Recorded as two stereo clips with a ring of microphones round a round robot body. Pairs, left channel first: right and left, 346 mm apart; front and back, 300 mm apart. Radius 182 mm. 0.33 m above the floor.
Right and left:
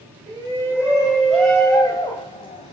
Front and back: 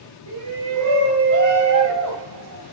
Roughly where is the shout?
Behind.